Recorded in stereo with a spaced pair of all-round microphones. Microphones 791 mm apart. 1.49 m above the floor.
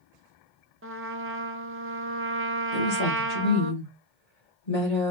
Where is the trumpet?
15° right (ahead or behind), 0.7 m.